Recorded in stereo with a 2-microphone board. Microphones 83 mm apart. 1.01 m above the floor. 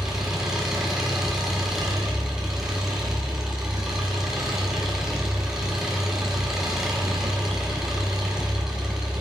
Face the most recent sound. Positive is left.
turn(degrees=-5)  # may be behind; listen again after turning